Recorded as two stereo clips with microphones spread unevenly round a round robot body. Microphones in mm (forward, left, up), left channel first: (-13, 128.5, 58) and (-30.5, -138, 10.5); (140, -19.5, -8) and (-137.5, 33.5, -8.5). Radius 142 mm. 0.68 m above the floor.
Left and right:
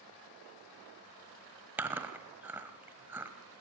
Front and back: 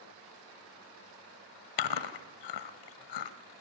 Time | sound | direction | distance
1.8 | chewing | 10° right | 1.0 m